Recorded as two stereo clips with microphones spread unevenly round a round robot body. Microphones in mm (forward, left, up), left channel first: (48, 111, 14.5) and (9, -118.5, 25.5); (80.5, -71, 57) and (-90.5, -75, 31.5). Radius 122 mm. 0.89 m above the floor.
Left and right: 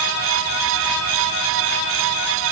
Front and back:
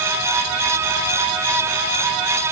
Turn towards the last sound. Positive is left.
No sound to turn to.